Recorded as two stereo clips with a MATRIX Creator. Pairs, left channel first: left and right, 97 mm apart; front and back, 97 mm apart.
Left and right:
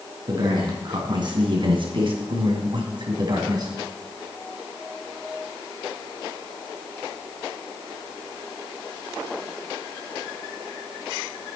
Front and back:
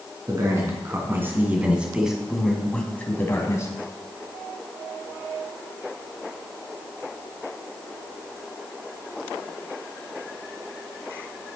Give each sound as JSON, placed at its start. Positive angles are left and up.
{"t": 0.3, "sound": "a man speaking", "azimuth_deg": -130, "distance_m": 3.5}